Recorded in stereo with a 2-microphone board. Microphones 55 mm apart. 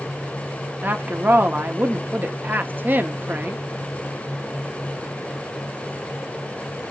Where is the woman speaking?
35° right (ahead or behind), 0.9 m.